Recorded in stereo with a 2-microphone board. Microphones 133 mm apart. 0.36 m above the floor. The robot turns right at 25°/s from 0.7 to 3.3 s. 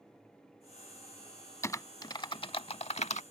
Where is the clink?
No clink in this recording.